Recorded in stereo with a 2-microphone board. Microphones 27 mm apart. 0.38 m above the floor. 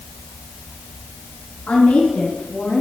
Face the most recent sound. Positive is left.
turn(degrees=65)  # may be behind; listen again after turning